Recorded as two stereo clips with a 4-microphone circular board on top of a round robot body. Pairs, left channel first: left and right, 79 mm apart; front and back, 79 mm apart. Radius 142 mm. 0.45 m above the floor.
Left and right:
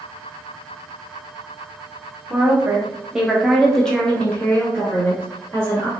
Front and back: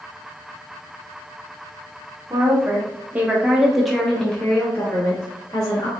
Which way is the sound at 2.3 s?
150° right.